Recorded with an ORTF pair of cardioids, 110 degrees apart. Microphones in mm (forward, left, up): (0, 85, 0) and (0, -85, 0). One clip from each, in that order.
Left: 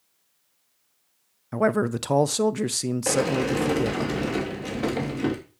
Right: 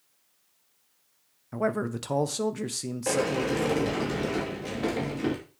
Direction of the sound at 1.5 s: 30° left.